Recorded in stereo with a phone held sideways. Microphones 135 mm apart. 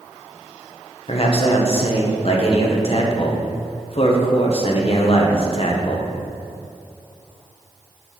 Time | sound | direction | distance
1.1 | a man speaking | 50° left (ahead or behind) | 1.3 m